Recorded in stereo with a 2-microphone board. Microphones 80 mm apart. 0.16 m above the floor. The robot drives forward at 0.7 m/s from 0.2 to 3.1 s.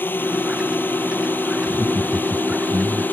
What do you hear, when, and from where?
0.0 s a drone: 25° left (ahead or behind)
1.6 s laughter: 35° right (ahead or behind); by 3.0 s 30° right (ahead or behind)